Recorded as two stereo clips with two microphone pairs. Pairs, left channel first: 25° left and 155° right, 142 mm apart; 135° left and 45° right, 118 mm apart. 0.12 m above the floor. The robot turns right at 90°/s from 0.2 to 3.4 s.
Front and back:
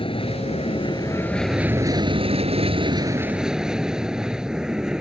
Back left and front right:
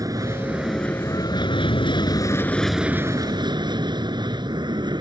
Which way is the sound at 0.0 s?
Straight ahead.